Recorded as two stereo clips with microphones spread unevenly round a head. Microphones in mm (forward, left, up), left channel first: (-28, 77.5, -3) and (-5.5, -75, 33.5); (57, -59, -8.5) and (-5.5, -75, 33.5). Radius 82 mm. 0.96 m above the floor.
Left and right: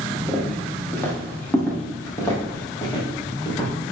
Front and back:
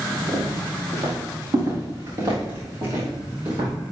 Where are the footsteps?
175° right, 5 m; by 3.7 s 165° left, 4.5 m.